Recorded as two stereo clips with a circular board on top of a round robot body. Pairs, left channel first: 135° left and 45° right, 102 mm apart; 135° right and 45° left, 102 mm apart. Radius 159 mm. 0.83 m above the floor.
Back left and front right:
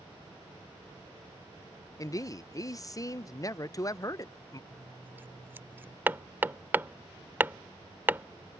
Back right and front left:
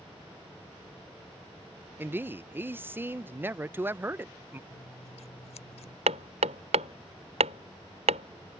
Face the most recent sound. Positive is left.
turn(degrees=25)